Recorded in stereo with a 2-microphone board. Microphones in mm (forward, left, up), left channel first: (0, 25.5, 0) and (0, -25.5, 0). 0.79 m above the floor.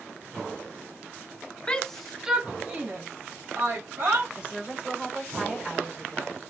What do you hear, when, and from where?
1.7 s a shout: 20° left (ahead or behind), 0.5 m; by 4.3 s 55° right (ahead or behind), 1.3 m
4.4 s a woman speaking: 20° right (ahead or behind), 2.5 m